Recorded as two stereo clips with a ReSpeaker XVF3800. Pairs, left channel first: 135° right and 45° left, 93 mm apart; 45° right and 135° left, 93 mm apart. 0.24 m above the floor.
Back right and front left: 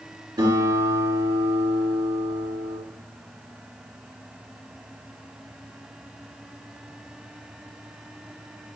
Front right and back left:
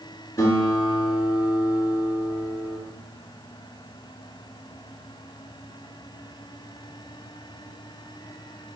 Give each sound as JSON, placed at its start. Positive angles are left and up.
{"t": 0.4, "sound": "a guitar", "azimuth_deg": 5, "distance_m": 4.0}